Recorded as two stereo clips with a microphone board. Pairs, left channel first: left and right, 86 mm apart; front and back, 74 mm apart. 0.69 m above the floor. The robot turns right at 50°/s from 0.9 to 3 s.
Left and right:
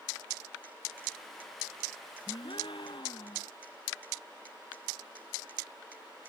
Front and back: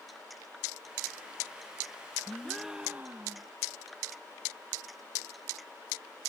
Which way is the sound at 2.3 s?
80° left.